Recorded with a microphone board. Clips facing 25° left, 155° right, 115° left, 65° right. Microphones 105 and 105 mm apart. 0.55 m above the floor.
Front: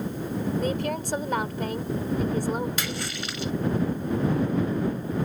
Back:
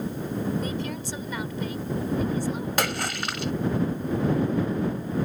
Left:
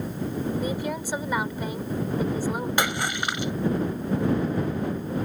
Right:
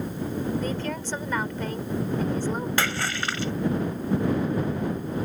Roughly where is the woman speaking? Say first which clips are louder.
Front 3 dB, left 1 dB; ahead left.